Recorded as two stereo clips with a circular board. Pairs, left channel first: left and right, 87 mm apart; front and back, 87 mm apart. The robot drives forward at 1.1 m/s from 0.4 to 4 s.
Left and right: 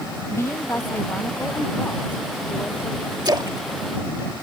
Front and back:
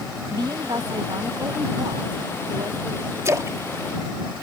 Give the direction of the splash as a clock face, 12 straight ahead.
4 o'clock.